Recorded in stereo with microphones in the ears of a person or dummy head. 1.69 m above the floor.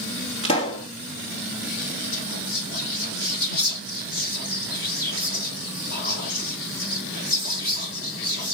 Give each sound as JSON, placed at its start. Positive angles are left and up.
{"t": 0.4, "sound": "a pop", "side_deg": 30, "distance_m": 2.5}
{"t": 2.1, "sound": "whispering", "side_deg": 50, "distance_m": 1.5}